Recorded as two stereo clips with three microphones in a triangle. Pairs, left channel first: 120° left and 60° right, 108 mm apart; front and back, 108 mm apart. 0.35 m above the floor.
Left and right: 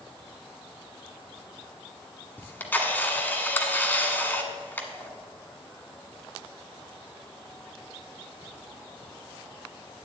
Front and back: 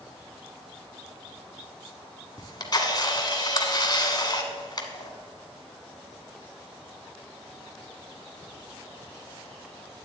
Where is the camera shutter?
50° left, 1.1 m.